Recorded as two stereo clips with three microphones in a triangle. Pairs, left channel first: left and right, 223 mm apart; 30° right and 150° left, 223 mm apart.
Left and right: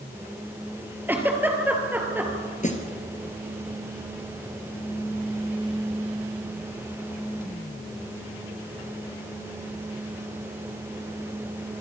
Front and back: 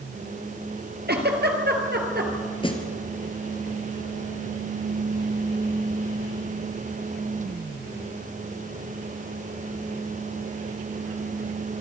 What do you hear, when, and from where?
1.1 s a giggle: 170° right, 2.5 m
2.6 s a snare drum: 35° left, 2.5 m